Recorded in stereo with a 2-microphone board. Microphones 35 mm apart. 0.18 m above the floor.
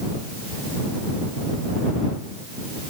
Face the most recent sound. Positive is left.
No sound to turn to.